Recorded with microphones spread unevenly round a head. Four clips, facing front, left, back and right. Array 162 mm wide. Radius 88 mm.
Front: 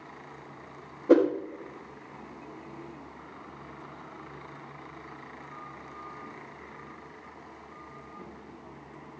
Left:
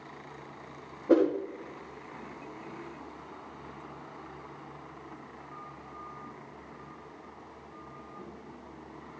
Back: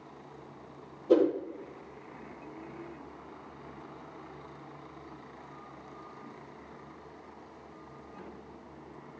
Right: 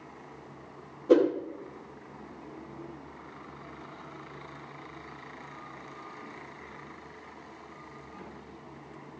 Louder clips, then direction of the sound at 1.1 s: Right 2 dB, front 3 dB; 5° left.